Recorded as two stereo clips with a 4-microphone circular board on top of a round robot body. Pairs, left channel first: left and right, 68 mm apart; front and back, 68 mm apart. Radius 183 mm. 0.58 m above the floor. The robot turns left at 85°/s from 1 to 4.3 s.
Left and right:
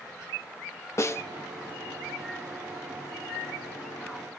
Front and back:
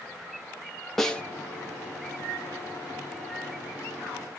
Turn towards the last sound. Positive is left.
turn(degrees=165)